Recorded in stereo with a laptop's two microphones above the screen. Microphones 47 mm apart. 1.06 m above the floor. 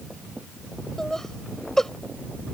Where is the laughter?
10° left (ahead or behind).